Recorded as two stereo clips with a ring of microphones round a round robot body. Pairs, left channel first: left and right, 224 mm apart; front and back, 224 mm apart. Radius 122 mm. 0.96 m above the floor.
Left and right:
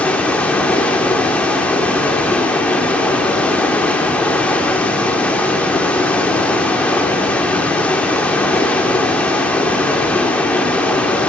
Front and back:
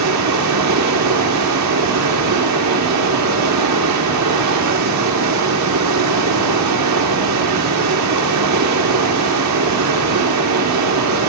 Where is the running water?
175° left, 1.5 m.